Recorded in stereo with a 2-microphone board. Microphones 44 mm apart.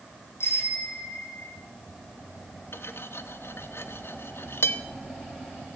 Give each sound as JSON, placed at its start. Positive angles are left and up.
{"t": 0.4, "sound": "a bicycle bell", "side_deg": 60, "distance_m": 7.0}
{"t": 2.7, "sound": "cutlery clinking", "side_deg": 70, "distance_m": 1.3}